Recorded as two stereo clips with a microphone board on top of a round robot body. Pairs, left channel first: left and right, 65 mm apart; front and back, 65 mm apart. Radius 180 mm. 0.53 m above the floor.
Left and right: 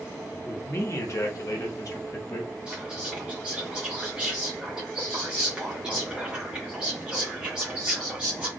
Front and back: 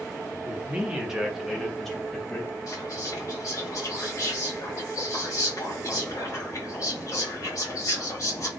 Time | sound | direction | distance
0.5 | a man speaking | 125° left | 1.0 m
2.7 | whispering | 15° right | 1.2 m